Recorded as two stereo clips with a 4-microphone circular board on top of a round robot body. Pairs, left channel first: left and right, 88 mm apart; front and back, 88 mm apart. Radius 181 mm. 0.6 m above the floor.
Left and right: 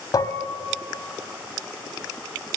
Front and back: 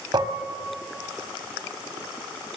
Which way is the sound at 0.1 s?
135° left.